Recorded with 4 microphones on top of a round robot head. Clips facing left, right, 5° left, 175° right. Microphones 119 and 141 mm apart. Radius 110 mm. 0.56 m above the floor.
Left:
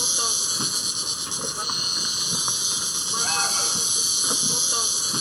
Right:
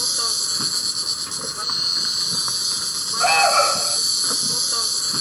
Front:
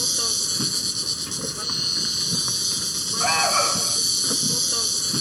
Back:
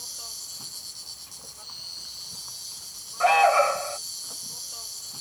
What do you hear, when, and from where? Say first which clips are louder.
0.0 s an insect: even, front 17 dB; 5° left
3.2 s an alarm: right 14 dB, back 5 dB; 115° right